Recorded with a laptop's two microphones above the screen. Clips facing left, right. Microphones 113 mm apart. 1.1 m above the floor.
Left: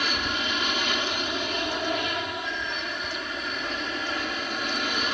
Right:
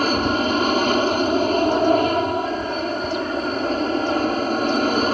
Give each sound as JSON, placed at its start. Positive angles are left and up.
{"t": 0.0, "sound": "an aircraft", "side_deg": -45}